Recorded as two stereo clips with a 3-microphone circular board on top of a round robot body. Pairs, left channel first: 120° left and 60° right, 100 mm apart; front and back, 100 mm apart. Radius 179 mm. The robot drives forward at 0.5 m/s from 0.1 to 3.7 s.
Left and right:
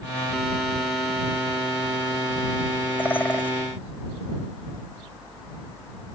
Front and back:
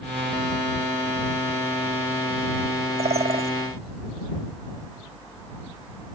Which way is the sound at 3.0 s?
165° right.